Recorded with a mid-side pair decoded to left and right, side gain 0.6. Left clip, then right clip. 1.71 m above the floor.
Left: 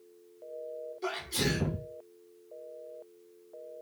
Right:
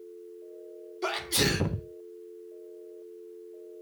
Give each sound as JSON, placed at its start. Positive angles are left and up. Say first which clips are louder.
{"t": 1.0, "sound": "a sneeze", "louder": "right 5 dB", "azimuth_deg": -40, "distance_m": 1.1}